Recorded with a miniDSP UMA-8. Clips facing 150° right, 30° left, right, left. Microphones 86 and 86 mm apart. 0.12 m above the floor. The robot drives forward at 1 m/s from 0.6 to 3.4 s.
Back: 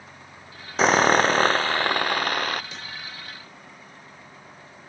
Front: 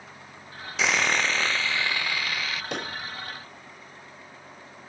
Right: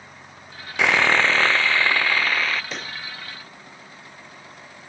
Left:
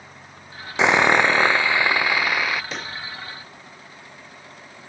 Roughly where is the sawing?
Behind.